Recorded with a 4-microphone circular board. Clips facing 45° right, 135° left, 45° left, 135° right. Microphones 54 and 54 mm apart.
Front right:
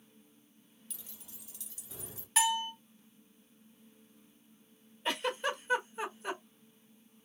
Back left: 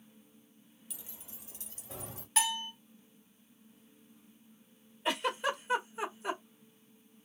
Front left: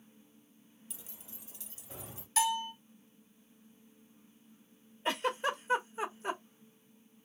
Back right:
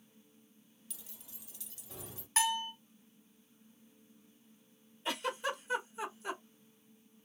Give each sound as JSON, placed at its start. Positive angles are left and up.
{"t": 0.9, "sound": "keys jangling", "azimuth_deg": 75, "distance_m": 0.5}
{"t": 2.4, "sound": "a bell", "azimuth_deg": -130, "distance_m": 1.8}
{"t": 5.0, "sound": "a giggle", "azimuth_deg": 60, "distance_m": 1.2}